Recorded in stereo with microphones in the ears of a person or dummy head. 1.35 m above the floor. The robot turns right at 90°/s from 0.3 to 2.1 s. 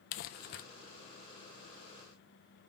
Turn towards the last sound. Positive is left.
turn(degrees=-120)